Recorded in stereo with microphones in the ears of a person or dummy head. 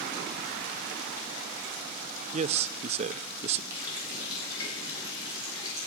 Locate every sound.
2.3 s a man speaking: 40° right (ahead or behind), 0.6 m
3.7 s a running tap: 25° left (ahead or behind), 8.5 m